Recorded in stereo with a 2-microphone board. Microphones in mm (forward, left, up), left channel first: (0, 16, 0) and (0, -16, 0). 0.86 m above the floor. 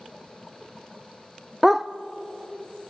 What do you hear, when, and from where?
1.6 s a dog barking: 10° right (ahead or behind), 0.6 m